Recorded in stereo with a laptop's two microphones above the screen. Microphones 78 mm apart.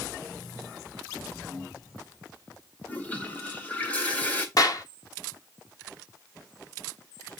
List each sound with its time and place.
2.9 s a toilet flushing: 20° left (ahead or behind), 1.4 m
4.6 s a clap: 50° left (ahead or behind), 1.2 m